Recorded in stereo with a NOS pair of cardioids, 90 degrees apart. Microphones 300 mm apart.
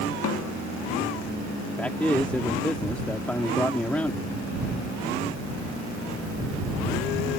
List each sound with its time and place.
0.2 s a snare drum: 55° left
1.8 s a man speaking: 5° left